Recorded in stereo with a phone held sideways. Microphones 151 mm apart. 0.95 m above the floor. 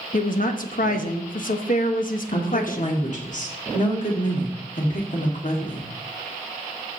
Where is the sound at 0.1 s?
65° left (ahead or behind), 1.0 m.